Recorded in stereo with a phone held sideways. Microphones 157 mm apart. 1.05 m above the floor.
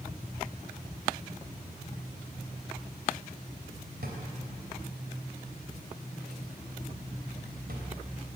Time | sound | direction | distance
4.0 | a drawer | 80° right | 3 m